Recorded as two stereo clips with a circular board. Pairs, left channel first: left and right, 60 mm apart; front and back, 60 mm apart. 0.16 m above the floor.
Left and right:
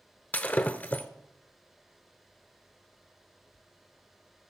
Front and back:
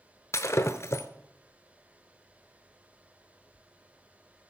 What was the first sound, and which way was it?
Breaking glass, 35° left.